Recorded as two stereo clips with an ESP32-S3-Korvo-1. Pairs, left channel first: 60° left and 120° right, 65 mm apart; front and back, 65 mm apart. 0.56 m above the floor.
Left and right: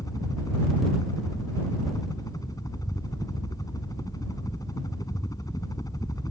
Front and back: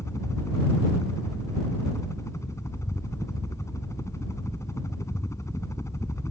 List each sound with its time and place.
0.0 s a helicopter: 40° left